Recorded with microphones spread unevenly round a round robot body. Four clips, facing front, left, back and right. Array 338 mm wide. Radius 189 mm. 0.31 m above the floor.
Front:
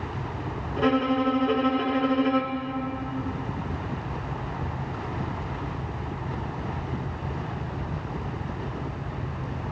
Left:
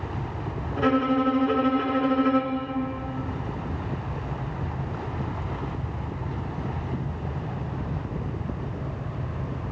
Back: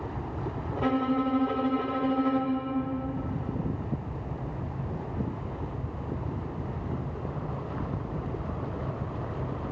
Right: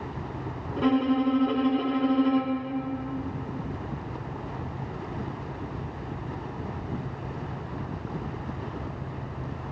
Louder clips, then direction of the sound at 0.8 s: Left 1 dB, front 4 dB; 100° right.